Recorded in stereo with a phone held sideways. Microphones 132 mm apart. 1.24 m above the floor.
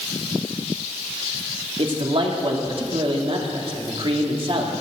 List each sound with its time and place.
1.8 s a man speaking: 50° right (ahead or behind), 2.5 m